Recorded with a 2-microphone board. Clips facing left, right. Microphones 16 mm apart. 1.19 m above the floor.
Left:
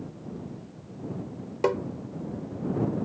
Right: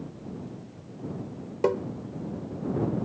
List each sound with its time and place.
1.6 s tapping: 15° left (ahead or behind)